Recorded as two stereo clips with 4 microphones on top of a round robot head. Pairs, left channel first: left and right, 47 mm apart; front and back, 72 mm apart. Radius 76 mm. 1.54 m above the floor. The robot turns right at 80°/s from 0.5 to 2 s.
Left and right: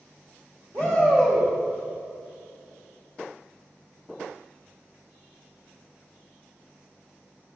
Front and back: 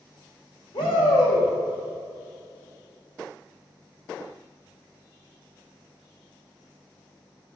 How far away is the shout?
About 2.5 m.